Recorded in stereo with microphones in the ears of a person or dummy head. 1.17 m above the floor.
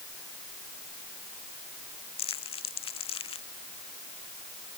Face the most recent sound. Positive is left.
turn(degrees=35)  # may be behind; listen again after turning